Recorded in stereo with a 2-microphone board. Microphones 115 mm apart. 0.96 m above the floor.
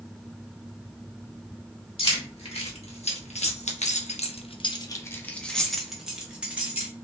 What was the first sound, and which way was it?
Keys jangling, 55° left (ahead or behind).